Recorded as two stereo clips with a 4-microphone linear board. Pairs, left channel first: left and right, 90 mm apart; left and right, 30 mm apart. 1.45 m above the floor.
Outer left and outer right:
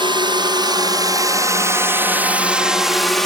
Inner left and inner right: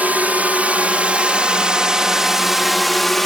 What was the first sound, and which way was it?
A drone, 65° right (ahead or behind).